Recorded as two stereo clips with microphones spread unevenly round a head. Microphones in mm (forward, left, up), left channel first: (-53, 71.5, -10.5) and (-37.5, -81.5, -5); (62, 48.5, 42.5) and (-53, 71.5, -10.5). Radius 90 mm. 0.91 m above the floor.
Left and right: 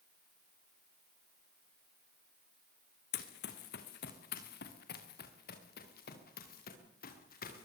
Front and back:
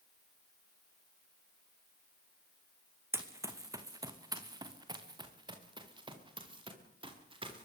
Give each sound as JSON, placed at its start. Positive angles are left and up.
{"t": 3.1, "sound": "running footsteps", "azimuth_deg": 95, "distance_m": 3.5}